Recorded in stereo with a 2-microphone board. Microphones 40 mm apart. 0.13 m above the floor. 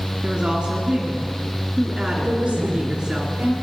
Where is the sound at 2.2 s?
45° right (ahead or behind), 5.5 m.